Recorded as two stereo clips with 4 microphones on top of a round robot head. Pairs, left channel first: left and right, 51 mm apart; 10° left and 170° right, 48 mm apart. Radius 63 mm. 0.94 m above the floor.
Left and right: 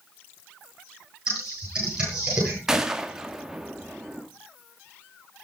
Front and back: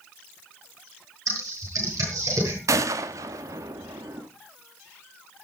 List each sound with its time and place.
1.3 s typing on a keyboard: 165° right, 9.5 m
2.7 s a gunshot: 170° right, 1.1 m